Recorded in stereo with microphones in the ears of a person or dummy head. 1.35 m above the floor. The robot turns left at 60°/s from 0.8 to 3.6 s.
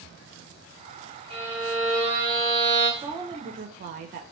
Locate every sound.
1.3 s a violin: 145° right, 1.8 m; by 2.9 s 120° left, 1.8 m
3.0 s a woman speaking: 20° right, 0.5 m; by 4.2 s 55° right, 0.5 m